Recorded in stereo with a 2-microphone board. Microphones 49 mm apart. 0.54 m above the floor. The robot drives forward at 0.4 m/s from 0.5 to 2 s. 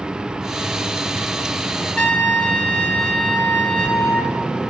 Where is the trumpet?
25° left (ahead or behind), 1.0 m.